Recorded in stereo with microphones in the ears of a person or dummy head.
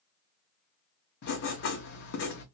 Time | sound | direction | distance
1.2 | writing | 60° left (ahead or behind) | 0.8 m